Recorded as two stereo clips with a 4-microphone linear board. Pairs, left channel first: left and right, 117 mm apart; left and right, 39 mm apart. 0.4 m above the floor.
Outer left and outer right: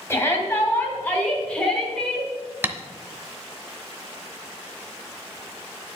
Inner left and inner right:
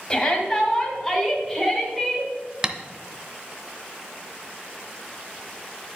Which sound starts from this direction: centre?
Tapping, at 2.6 s.